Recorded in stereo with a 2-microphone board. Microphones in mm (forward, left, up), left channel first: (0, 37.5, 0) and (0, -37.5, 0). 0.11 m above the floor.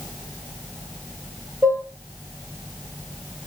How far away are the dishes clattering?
About 0.8 m.